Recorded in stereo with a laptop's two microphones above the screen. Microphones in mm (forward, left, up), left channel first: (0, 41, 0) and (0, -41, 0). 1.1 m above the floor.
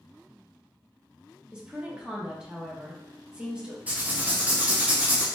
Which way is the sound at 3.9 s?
20° right (ahead or behind).